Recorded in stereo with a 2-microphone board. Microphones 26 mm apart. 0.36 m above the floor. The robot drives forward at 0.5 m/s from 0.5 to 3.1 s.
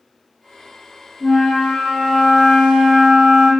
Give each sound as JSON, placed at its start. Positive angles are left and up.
{"t": 1.2, "sound": "a flute", "side_deg": 25, "distance_m": 0.8}